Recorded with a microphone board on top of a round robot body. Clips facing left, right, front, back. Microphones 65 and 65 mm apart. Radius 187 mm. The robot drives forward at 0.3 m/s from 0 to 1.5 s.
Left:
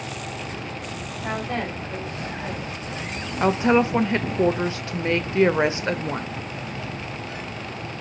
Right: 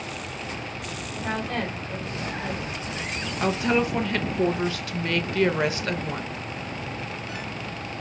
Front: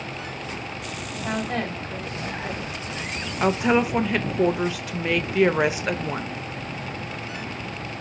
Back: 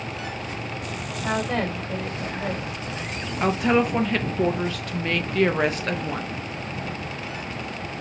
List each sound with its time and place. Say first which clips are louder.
1.2 s a woman speaking: left 1 dB, back 2 dB; 165° left, 2.5 m
3.4 s a woman speaking: left 5 dB, even; 75° left, 0.6 m